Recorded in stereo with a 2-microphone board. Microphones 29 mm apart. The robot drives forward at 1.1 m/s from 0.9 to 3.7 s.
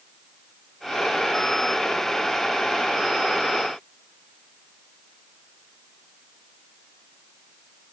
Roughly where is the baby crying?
No baby crying in this recording.